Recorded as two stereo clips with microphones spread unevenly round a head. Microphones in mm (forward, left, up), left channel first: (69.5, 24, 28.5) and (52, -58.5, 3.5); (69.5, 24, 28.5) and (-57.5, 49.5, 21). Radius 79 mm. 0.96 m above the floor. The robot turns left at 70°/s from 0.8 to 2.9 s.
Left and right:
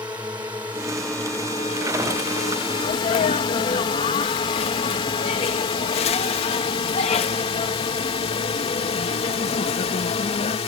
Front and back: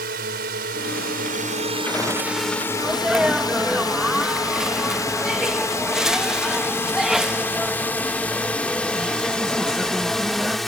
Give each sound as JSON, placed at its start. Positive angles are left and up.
{"t": 0.0, "sound": "a drone", "azimuth_deg": -175}
{"t": 2.8, "sound": "a sneeze", "azimuth_deg": 95}